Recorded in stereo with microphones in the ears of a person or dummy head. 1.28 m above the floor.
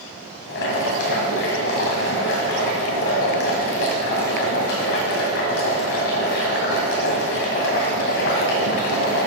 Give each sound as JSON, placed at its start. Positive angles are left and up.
{"t": 0.5, "sound": "boiling", "side_deg": 55, "distance_m": 1.8}